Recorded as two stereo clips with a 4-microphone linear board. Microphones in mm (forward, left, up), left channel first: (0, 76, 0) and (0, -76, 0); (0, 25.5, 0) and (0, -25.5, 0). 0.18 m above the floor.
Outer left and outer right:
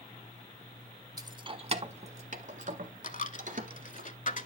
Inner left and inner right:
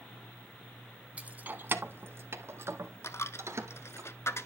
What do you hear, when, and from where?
1.2 s keys jangling: 25° right (ahead or behind), 0.8 m; by 4.0 s 60° right (ahead or behind), 2 m
3.0 s a dropped coin: 55° left (ahead or behind), 0.7 m